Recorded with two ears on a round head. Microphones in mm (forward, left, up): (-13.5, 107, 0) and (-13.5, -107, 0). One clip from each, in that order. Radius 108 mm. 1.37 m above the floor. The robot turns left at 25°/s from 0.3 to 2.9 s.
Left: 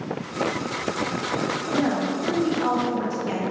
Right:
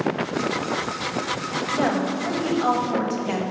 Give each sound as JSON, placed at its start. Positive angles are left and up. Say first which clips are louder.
{"t": 1.7, "sound": "a woman speaking", "louder": "right 2 dB", "side_deg": -55, "distance_m": 1.0}